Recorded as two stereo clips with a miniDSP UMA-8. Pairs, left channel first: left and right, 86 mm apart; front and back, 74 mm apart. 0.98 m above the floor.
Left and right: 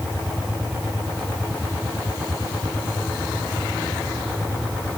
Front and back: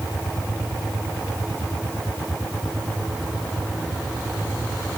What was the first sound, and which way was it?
Only background noise.